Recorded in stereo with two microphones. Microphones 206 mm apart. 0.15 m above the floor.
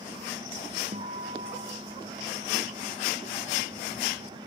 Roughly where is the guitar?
Right.